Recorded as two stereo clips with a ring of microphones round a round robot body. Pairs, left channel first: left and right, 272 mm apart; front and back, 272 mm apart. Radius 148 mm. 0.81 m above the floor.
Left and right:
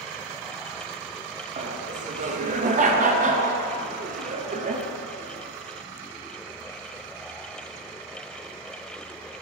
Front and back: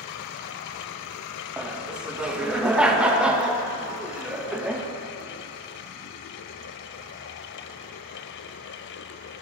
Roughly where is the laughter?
Right.